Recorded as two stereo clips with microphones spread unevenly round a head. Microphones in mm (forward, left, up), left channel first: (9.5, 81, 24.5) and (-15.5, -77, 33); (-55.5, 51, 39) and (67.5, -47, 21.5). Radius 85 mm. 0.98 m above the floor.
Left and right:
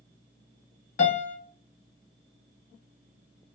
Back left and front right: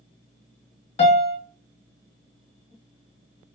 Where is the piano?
95° left, 0.9 m.